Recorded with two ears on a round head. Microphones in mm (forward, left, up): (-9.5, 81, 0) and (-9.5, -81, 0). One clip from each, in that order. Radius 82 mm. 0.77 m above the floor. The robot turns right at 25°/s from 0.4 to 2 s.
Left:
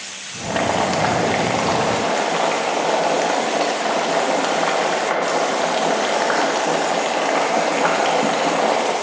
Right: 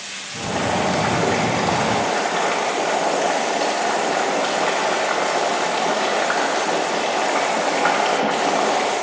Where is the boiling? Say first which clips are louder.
Left 2 dB; 120° left, 0.7 m; by 8.9 s 155° left, 0.7 m.